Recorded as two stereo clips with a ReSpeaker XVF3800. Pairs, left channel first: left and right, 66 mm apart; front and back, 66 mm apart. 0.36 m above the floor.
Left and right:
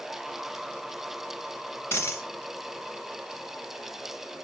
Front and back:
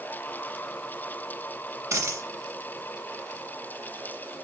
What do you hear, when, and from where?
1.9 s a dropped coin: 140° left, 1.1 m